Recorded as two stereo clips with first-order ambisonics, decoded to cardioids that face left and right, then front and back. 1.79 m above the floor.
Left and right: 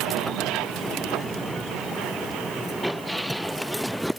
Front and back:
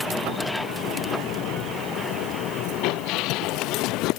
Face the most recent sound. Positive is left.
No sound to turn to.